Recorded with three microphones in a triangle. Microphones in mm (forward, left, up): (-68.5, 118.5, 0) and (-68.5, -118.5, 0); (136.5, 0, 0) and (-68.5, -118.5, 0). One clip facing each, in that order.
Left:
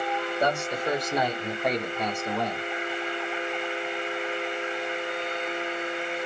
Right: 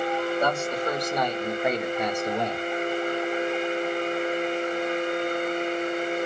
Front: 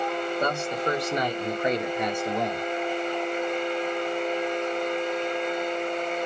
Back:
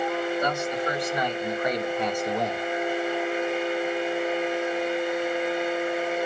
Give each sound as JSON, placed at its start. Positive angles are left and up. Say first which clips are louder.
{"t": 0.4, "sound": "a man speaking", "louder": "right 1 dB, even", "azimuth_deg": 20, "distance_m": 1.6}